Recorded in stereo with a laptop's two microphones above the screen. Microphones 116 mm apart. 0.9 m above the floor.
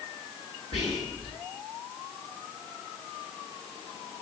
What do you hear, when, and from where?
0.7 s whispering: 65° left (ahead or behind), 2 m